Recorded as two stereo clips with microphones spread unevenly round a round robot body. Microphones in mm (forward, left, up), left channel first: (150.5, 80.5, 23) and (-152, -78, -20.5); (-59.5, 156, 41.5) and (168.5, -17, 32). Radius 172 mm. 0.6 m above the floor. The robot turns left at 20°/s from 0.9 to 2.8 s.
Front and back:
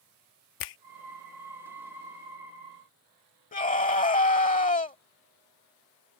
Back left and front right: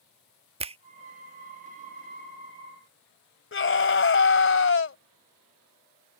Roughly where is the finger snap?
Ahead left.